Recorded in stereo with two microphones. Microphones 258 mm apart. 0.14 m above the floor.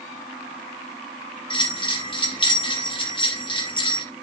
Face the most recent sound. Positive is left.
turn(degrees=20)  # may be behind; listen again after turning